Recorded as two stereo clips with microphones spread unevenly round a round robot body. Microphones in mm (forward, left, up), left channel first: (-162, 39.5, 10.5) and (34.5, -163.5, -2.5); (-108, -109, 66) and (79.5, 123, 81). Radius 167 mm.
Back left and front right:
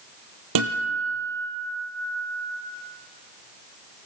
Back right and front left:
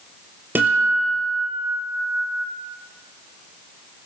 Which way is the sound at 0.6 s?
35° right.